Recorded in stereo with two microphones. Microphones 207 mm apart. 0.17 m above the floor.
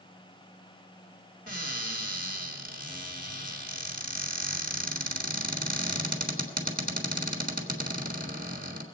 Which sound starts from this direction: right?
A cupboard door, at 1.5 s.